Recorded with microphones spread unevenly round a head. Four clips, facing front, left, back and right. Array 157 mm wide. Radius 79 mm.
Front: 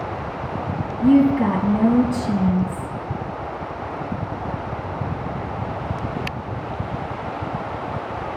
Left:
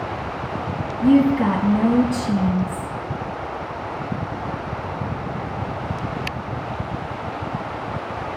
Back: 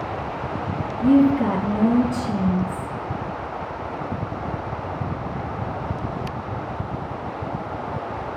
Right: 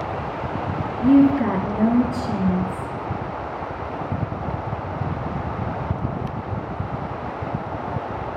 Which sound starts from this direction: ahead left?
A woman speaking, at 1.0 s.